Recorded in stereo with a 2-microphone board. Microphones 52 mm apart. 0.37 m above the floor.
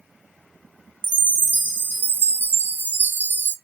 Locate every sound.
1.0 s a chime: 40° left (ahead or behind), 0.8 m